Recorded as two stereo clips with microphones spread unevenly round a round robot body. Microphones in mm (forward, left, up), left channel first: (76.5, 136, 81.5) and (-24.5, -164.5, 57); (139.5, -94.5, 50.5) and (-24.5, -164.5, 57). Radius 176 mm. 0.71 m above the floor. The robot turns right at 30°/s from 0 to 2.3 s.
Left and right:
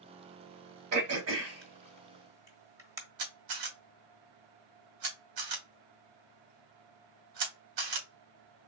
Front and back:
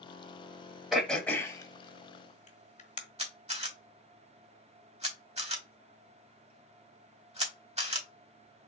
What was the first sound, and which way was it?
Throat clearing, 70° right.